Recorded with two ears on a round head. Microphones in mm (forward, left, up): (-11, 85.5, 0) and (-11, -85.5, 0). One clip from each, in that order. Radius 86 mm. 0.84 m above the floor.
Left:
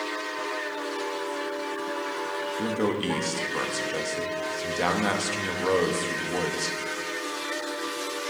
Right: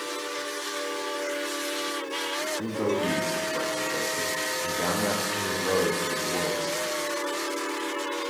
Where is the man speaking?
40° left (ahead or behind), 1.1 m.